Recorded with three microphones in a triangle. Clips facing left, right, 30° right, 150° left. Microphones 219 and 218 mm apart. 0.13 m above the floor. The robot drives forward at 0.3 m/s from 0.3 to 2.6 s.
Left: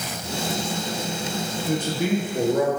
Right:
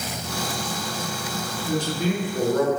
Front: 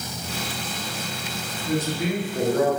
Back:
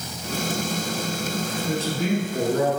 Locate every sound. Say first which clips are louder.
1.7 s a man speaking: left 1 dB, front 1 dB; 140° left, 1.8 m; by 2.7 s 145° left, 1.9 m